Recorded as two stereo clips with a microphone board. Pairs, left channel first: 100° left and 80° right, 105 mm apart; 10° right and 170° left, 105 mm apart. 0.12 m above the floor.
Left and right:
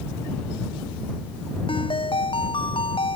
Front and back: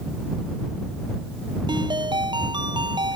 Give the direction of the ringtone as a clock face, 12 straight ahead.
8 o'clock.